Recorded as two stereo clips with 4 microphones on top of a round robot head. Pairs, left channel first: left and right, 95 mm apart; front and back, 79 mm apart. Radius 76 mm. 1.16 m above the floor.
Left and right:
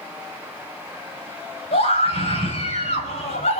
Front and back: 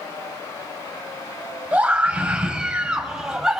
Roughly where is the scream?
Left.